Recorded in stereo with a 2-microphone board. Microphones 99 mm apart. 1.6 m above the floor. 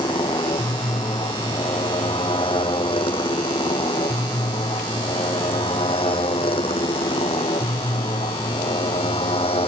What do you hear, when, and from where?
0.0 s a motorcycle: 55° left (ahead or behind); by 9.7 s 80° left